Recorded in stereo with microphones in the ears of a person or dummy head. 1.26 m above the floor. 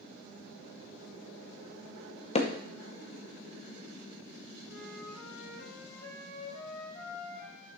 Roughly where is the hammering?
Left.